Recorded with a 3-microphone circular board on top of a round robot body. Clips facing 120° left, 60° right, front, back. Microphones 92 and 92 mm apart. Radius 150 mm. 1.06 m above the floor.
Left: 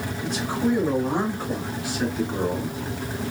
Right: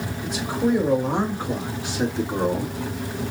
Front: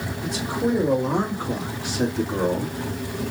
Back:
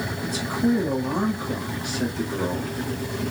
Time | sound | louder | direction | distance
0.2 | a man speaking | right 1 dB, back 1 dB | 15° left | 3.5 m